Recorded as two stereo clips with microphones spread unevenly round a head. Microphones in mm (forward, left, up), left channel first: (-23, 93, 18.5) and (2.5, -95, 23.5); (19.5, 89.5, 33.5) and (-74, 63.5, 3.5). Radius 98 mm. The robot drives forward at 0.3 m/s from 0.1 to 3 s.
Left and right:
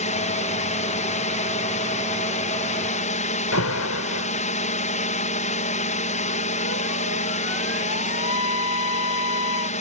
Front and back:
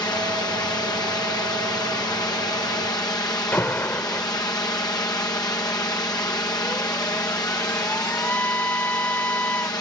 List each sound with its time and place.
0.0 s a drone: 65° left
3.5 s an alarm: 85° left